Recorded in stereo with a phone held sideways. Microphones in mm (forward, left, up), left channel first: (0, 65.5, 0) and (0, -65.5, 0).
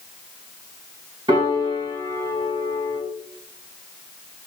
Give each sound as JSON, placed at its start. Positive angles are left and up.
{"t": 1.3, "sound": "a piano", "side_deg": -35, "distance_m": 2.0}